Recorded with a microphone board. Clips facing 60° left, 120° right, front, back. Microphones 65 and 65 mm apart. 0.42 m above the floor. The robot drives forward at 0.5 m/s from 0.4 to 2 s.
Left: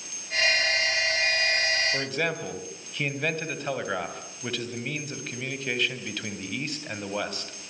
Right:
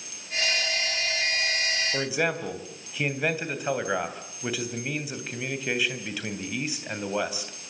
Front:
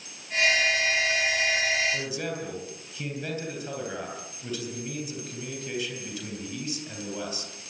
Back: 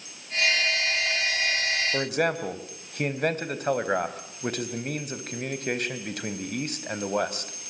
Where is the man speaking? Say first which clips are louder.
Right 2 dB, back 6 dB; 160° left, 3 m.